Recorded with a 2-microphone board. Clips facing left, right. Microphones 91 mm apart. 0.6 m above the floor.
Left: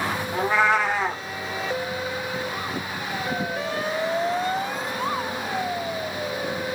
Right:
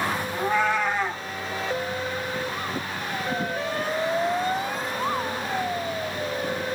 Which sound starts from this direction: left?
A cat meowing, at 0.3 s.